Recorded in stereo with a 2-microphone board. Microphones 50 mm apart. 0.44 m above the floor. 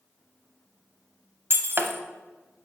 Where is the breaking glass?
45° right (ahead or behind), 0.7 m.